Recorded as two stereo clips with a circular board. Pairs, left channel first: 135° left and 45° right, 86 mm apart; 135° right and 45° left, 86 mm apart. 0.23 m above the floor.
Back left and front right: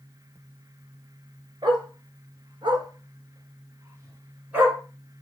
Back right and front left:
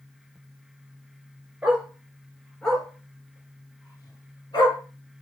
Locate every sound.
1.6 s a dog barking: 25° right, 1.4 m; by 4.8 s 120° right, 1.3 m